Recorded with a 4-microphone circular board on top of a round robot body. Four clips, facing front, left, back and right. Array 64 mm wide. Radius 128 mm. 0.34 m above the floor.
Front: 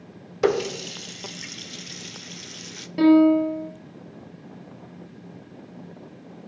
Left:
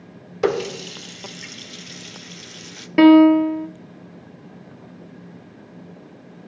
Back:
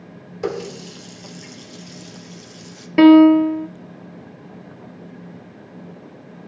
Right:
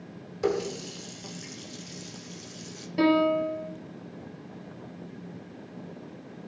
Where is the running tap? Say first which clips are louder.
Left 6 dB, front 4 dB; 60° left, 0.9 m.